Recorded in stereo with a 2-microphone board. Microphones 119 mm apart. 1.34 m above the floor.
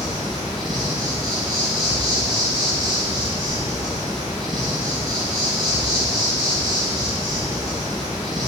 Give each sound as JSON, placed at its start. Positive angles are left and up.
{"t": 0.0, "sound": "an insect", "side_deg": -35, "distance_m": 3.0}